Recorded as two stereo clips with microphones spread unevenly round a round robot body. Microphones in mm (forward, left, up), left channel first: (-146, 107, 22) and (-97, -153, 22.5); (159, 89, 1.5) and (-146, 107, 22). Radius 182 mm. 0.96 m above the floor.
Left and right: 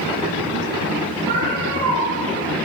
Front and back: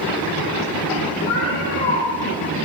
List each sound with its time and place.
1.3 s a cat meowing: 35° right, 9 m